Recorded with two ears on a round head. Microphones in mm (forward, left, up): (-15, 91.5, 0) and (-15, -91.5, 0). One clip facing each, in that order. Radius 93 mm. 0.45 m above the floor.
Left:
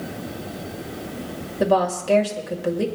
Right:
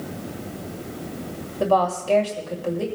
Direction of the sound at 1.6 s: 20° left (ahead or behind).